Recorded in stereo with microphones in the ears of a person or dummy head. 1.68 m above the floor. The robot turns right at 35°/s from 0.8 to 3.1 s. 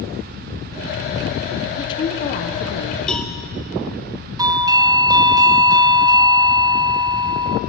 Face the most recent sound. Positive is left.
turn(degrees=-20)  # may be behind; listen again after turning